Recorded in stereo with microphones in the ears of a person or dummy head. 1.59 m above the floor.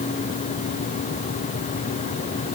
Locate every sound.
Only background noise.